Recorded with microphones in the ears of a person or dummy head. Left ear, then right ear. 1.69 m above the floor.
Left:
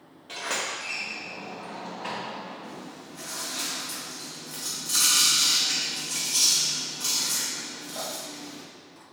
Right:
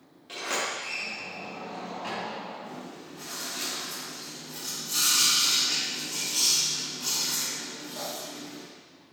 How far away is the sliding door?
About 3 m.